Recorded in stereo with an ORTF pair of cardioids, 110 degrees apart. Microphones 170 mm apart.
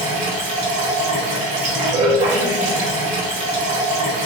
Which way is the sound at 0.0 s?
45° right.